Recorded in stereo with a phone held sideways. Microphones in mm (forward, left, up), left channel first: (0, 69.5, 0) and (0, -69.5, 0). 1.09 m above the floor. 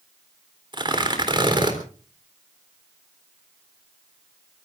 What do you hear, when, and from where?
0.7 s tearing paper: 35° right (ahead or behind), 3.5 m